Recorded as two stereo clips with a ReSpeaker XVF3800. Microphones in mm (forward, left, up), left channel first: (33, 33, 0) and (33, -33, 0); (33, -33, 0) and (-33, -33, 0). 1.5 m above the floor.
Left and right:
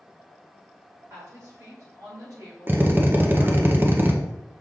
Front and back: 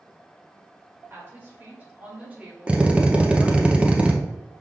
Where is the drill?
120° right, 0.6 m.